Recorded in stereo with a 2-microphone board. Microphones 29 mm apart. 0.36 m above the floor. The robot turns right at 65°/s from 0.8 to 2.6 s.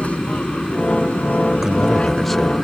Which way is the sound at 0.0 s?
55° left.